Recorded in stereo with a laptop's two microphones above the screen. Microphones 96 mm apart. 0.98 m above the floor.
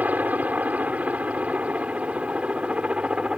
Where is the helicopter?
15° right (ahead or behind); by 3.4 s 10° right (ahead or behind).